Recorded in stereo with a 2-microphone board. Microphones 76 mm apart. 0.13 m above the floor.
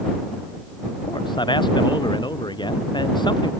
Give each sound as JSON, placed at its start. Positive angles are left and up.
{"t": 1.0, "sound": "a man speaking", "side_deg": 85}